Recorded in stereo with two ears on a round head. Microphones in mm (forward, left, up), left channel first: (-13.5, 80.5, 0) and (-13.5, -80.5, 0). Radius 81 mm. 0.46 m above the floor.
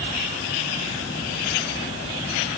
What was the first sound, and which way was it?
Only background noise.